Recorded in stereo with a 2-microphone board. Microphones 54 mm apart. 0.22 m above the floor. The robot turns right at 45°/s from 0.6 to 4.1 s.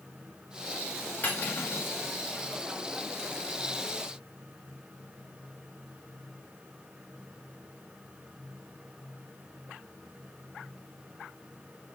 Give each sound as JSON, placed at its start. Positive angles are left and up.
{"t": 1.2, "sound": "cutlery clinking", "side_deg": 45, "distance_m": 1.6}